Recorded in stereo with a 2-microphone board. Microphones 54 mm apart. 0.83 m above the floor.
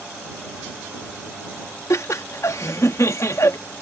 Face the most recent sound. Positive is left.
turn(degrees=65)  # may be behind; listen again after turning